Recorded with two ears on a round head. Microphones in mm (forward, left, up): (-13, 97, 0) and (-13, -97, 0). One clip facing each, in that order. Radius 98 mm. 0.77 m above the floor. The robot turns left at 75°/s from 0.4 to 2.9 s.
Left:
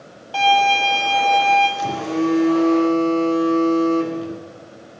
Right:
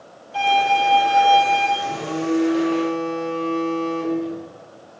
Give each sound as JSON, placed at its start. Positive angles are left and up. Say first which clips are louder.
{"t": 0.3, "sound": "a violin", "louder": "left 2 dB", "azimuth_deg": 85, "distance_m": 5.0}
{"t": 1.8, "sound": "a phone buzzing", "louder": "left 4 dB", "azimuth_deg": 125, "distance_m": 1.4}